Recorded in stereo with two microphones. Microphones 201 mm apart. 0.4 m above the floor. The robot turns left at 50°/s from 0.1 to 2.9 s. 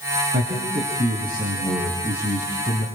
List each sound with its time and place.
0.3 s a man speaking: 105° right, 4.5 m; by 2.9 s 130° left, 4.5 m